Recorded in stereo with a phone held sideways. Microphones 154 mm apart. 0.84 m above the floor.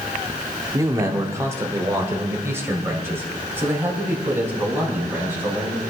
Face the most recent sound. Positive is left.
turn(degrees=-15)  # may be behind; listen again after turning